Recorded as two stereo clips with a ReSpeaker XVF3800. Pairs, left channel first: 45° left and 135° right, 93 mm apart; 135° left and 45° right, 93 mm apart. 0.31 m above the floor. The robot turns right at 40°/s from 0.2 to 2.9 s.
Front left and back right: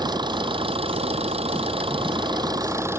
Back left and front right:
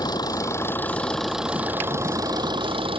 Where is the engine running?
Straight behind; by 3.0 s 70° right.